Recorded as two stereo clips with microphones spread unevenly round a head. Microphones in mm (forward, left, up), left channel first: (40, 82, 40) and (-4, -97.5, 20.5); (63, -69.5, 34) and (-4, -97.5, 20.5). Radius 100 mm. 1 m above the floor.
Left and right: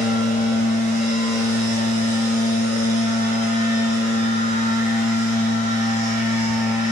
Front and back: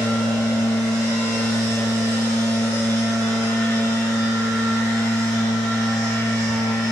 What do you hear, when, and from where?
0.0 s a machine running: 115° left, 1.0 m